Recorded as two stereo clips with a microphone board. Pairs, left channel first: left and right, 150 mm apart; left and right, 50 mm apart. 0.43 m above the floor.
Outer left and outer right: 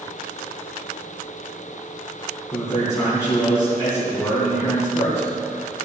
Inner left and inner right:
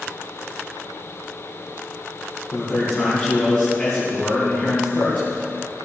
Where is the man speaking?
20° left (ahead or behind), 4 m.